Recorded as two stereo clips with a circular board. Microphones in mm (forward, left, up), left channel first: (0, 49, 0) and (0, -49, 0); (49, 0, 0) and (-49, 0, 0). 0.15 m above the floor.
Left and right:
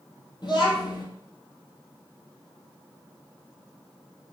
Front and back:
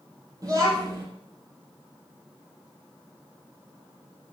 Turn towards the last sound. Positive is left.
turn(degrees=130)